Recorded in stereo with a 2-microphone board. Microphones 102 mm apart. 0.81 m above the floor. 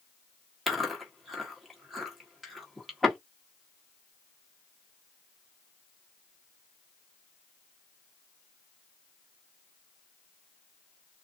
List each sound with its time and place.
0.7 s chewing: centre (ahead or behind), 1.6 m